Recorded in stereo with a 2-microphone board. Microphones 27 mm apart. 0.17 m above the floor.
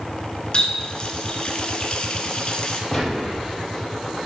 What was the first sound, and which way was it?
A running tap, 35° left (ahead or behind).